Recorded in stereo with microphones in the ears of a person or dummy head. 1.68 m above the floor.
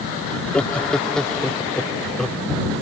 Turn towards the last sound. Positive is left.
turn(degrees=5)  # may be behind; listen again after turning